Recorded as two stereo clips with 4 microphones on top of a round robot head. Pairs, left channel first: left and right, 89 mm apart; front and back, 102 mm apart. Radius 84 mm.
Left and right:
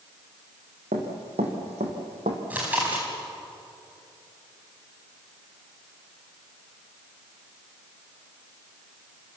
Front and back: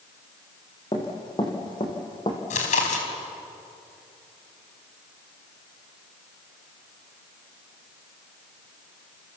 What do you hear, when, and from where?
0.9 s running footsteps: 65° right, 4 m; by 2.4 s 60° right, 3 m
2.5 s chewing: 10° right, 4 m